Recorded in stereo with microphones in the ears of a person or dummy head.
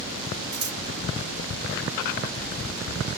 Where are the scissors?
60° right (ahead or behind), 2.5 m.